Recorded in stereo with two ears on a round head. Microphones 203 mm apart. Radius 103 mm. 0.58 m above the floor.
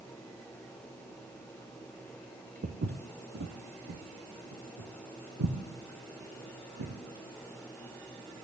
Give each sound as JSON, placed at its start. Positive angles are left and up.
{"t": 2.6, "sound": "footsteps", "side_deg": -40, "distance_m": 1.2}